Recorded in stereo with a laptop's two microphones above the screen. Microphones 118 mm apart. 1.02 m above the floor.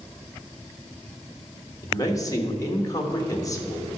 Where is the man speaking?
30° left (ahead or behind), 1.0 m.